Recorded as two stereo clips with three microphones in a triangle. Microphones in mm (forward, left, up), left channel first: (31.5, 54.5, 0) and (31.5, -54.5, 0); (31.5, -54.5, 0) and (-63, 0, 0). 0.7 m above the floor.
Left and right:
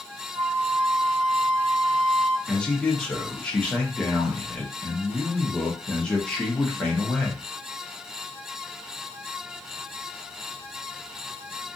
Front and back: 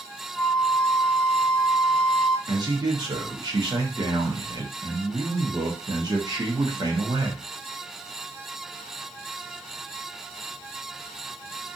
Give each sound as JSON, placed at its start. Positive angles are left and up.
{"t": 0.3, "sound": "a flute", "azimuth_deg": -115, "distance_m": 0.5}
{"t": 2.5, "sound": "a man speaking", "azimuth_deg": 165, "distance_m": 0.9}